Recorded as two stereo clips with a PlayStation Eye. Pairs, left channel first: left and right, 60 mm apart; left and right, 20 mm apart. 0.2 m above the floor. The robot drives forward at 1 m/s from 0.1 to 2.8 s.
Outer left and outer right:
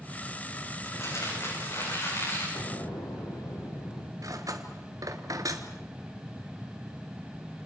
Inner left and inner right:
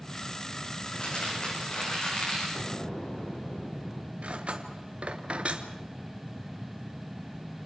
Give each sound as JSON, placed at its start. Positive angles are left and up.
{"t": 0.8, "sound": "crumpling", "side_deg": 50, "distance_m": 10.0}
{"t": 2.5, "sound": "an explosion", "side_deg": 80, "distance_m": 5.5}
{"t": 4.2, "sound": "cutlery clinking", "side_deg": -65, "distance_m": 2.0}